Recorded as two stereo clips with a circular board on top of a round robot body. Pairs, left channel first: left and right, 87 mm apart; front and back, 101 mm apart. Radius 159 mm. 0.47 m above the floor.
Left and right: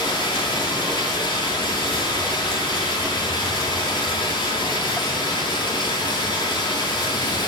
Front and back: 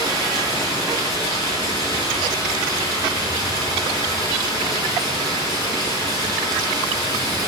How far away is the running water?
About 3.5 m.